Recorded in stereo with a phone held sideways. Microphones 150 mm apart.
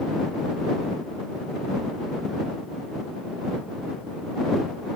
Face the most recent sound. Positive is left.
No sound to turn to.